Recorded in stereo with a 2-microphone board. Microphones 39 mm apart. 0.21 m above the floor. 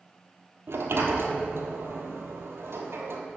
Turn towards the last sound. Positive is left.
turn(degrees=-90)